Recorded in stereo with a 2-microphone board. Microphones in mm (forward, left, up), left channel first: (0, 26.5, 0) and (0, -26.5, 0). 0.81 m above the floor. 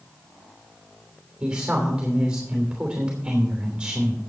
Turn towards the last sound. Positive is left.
turn(degrees=-20)  # may be behind; listen again after turning